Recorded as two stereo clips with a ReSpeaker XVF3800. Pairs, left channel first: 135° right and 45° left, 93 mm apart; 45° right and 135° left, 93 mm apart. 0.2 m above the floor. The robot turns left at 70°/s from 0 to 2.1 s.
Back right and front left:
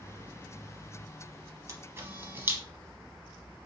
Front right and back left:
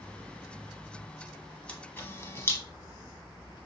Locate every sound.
1.7 s a camera shutter: 25° left, 0.7 m; by 2.6 s 5° right, 0.7 m